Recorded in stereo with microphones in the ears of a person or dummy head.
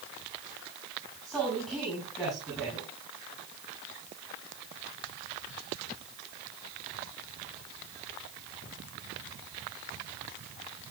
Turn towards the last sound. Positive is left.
turn(degrees=-5)  # may be behind; listen again after turning